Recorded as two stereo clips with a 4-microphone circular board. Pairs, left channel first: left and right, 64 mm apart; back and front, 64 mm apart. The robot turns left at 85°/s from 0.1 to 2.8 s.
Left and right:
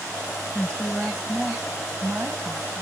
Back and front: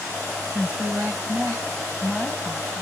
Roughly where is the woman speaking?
Ahead left.